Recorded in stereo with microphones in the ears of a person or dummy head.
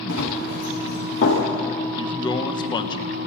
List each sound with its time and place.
0.1 s running footsteps: 70° left (ahead or behind), 5 m; by 1.4 s 60° left (ahead or behind), 6 m
1.9 s a man speaking: 25° left (ahead or behind), 1.1 m